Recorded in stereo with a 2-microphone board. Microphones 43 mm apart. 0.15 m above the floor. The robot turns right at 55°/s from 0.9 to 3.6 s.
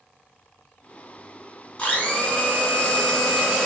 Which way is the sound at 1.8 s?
20° left (ahead or behind).